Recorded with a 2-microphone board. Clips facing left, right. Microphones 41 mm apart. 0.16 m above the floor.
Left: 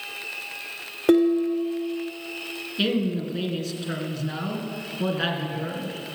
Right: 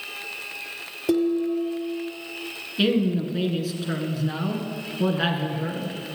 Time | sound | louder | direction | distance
1.1 | dishes clattering | left 3 dB | 50° left (ahead or behind) | 1.3 m
2.8 | a woman speaking | right 3 dB | 5° right (ahead or behind) | 2.0 m